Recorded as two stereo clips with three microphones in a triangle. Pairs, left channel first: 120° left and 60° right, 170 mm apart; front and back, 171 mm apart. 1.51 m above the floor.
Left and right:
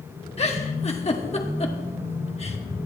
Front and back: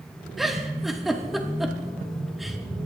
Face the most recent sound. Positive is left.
turn(degrees=90)